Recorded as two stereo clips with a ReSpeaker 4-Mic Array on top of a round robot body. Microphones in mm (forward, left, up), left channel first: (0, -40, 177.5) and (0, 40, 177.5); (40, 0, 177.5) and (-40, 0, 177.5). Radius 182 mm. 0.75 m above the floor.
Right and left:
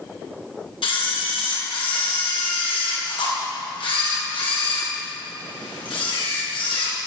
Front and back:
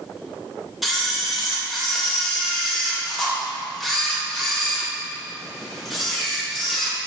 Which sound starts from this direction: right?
A camera shutter, at 0.8 s.